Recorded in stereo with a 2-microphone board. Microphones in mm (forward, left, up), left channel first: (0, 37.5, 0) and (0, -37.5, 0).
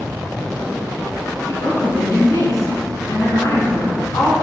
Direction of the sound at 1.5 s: 55° left (ahead or behind).